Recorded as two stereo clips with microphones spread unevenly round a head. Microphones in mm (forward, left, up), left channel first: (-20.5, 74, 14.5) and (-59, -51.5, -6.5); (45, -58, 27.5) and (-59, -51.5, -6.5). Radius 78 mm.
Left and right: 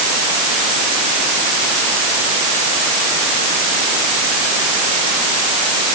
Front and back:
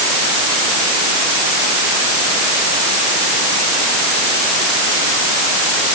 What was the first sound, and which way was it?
Only background noise.